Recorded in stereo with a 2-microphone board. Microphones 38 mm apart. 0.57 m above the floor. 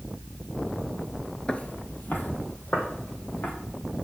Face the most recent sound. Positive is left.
turn(degrees=65)  # may be behind; listen again after turning